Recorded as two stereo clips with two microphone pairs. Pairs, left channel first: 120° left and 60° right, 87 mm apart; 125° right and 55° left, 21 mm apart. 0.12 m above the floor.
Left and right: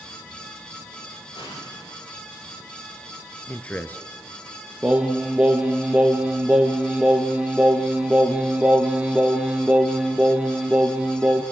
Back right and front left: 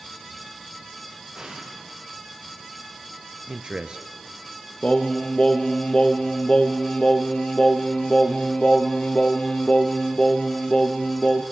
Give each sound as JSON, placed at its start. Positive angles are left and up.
{"t": 1.4, "sound": "an explosion", "azimuth_deg": 105, "distance_m": 8.0}
{"t": 3.5, "sound": "a man speaking", "azimuth_deg": 55, "distance_m": 1.5}
{"t": 4.8, "sound": "singing", "azimuth_deg": -135, "distance_m": 1.9}